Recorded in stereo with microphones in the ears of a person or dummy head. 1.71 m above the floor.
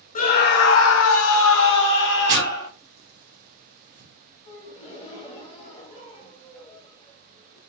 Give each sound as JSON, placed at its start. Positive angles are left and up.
{"t": 0.1, "sound": "a scream", "side_deg": 40, "distance_m": 0.7}
{"t": 2.3, "sound": "tearing paper", "side_deg": -55, "distance_m": 0.9}
{"t": 4.5, "sound": "a gasp", "side_deg": 30, "distance_m": 1.4}